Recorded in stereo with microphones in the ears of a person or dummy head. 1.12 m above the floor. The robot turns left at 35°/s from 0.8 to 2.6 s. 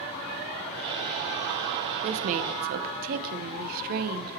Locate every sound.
2.0 s a woman speaking: 35° right (ahead or behind), 0.6 m; by 4.3 s 50° right (ahead or behind), 0.6 m